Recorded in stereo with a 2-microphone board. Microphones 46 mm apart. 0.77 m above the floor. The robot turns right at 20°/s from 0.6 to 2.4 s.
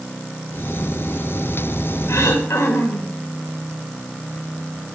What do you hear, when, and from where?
2.1 s throat clearing: 75° left (ahead or behind), 2 m; by 3.1 s 70° left (ahead or behind), 2 m